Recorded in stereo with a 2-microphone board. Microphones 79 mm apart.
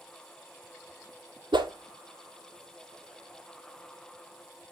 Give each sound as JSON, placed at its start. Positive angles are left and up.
{"t": 1.5, "sound": "a whoosh", "side_deg": -75, "distance_m": 1.0}